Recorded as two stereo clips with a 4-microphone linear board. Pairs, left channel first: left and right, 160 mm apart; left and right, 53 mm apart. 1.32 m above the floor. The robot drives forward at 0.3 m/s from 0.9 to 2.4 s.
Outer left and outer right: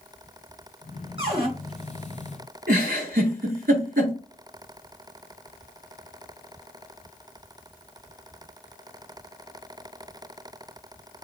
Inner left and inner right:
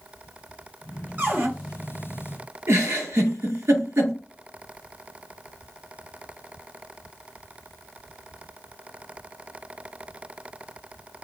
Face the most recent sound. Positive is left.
turn(degrees=-60)  # may be behind; listen again after turning